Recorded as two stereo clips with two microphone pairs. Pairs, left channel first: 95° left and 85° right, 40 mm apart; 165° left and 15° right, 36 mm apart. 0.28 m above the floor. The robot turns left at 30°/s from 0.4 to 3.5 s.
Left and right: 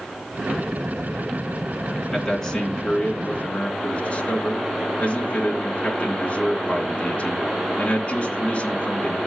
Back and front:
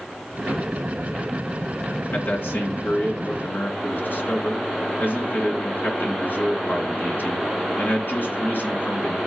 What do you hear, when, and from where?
2.1 s a man speaking: 175° right, 2.5 m; by 9.2 s 145° left, 2.5 m